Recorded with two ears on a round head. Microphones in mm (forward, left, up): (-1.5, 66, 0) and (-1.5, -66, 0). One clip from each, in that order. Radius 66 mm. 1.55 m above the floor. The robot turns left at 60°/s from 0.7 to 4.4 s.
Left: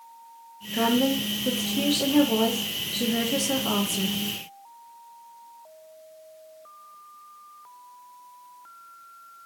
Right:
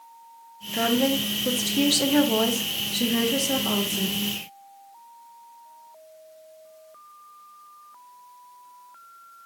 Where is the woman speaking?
20° right, 0.7 m; by 4.2 s 135° left, 0.7 m.